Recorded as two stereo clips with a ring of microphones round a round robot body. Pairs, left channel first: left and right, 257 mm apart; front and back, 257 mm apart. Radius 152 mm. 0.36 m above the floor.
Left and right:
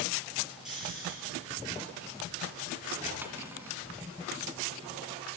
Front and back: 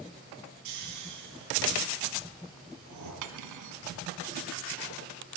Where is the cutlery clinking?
175° right, 2 m.